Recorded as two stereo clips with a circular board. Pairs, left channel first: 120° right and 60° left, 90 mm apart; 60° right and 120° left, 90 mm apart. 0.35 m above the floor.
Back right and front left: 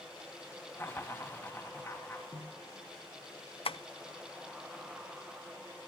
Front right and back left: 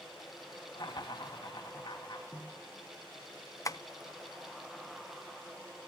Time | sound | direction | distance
0.8 | laughter | 60° right | 2.5 m
2.3 | a snare drum | 115° right | 5.5 m
3.6 | tapping | 110° right | 0.6 m